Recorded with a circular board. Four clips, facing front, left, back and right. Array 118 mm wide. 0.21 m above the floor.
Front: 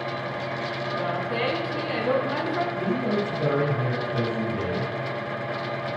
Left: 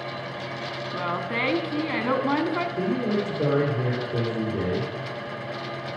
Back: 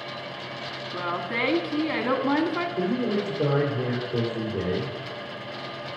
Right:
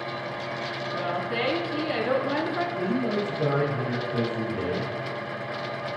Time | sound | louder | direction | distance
0.9 | a woman speaking | even, even | 120° left | 1.9 m
2.8 | a man speaking | left 1 dB, even | 125° left | 5.5 m